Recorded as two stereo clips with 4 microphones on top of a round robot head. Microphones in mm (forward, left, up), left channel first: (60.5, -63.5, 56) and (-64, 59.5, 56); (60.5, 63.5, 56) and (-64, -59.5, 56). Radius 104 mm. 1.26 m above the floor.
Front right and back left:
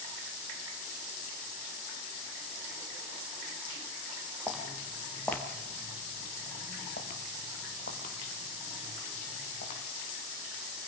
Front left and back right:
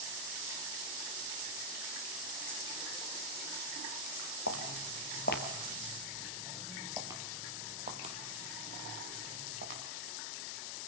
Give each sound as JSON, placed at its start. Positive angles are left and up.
{"t": 4.5, "sound": "footsteps", "azimuth_deg": 50, "distance_m": 2.0}